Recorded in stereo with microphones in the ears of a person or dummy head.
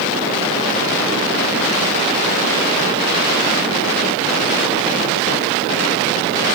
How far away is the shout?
I don't hear a shout.